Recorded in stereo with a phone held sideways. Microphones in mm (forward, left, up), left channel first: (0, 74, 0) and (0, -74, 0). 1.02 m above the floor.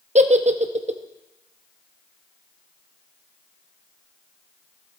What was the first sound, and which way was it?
A giggle, 50° right (ahead or behind).